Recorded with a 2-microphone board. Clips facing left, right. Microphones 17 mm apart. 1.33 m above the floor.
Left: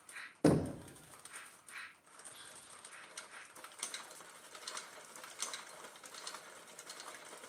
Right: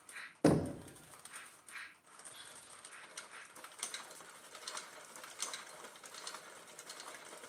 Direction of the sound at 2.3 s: 40° right (ahead or behind).